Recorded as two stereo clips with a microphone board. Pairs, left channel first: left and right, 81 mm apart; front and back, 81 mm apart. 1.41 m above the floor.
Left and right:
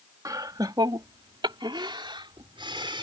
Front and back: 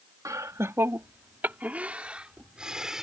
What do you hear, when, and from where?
0.2 s laughter: 135° right; by 3.0 s 95° right